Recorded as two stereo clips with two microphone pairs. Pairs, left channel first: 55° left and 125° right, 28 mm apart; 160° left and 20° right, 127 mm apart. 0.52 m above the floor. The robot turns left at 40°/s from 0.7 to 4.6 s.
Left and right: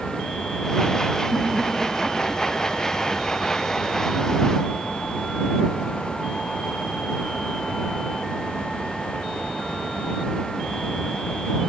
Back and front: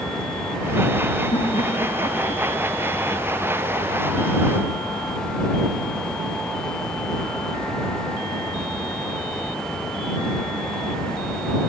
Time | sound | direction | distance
1.3 | laughter | 170° right | ?